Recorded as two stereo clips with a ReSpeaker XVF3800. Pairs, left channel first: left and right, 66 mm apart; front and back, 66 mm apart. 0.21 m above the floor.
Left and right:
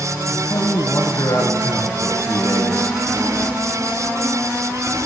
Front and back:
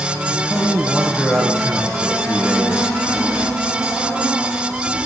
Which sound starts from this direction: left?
A man speaking, at 0.3 s.